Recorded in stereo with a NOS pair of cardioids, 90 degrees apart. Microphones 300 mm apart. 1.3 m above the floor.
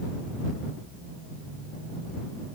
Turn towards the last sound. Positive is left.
No sound to turn to.